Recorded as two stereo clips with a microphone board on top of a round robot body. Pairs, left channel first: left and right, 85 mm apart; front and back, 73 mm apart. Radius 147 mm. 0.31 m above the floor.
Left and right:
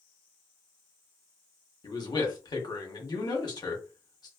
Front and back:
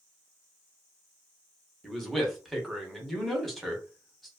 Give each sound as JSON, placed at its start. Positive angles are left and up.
{"t": 1.8, "sound": "a man speaking", "azimuth_deg": 90, "distance_m": 1.2}